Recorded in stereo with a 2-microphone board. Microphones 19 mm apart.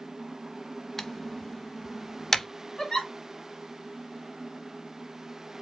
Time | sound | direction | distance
1.0 | typing on a keyboard | 20° left (ahead or behind) | 0.5 m
2.8 | a giggle | 35° left (ahead or behind) | 1.6 m